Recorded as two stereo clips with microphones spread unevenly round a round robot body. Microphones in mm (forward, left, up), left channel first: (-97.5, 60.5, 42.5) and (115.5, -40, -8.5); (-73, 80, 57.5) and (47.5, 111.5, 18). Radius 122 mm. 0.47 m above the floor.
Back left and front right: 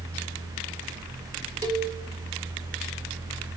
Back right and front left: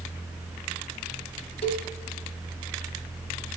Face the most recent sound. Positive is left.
turn(degrees=-100)